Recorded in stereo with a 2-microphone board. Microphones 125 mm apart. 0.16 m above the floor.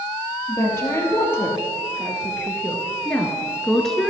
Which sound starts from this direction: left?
A woman speaking, at 0.5 s.